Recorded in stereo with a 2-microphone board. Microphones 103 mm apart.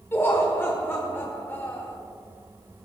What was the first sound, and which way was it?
Laughter, 25° left (ahead or behind).